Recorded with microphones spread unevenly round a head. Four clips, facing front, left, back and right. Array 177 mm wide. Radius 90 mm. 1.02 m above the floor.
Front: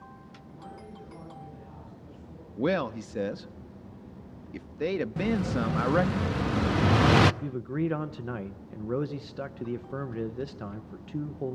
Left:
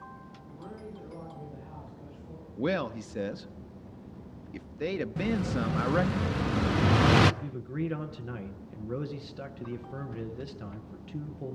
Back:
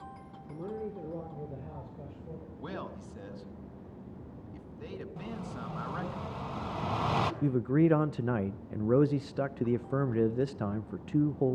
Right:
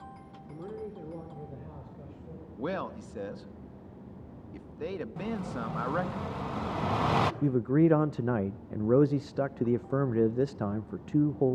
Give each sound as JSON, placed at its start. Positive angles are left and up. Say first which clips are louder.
{"t": 0.5, "sound": "a man speaking", "louder": "right 4 dB, back 8 dB", "azimuth_deg": -150, "distance_m": 3.0}
{"t": 2.6, "sound": "a man speaking", "louder": "left 4 dB, front 15 dB", "azimuth_deg": 15, "distance_m": 1.3}
{"t": 5.2, "sound": "an explosion", "louder": "left 5 dB, front 12 dB", "azimuth_deg": 30, "distance_m": 0.8}
{"t": 7.4, "sound": "a man speaking", "louder": "right 11 dB, back 5 dB", "azimuth_deg": -95, "distance_m": 0.7}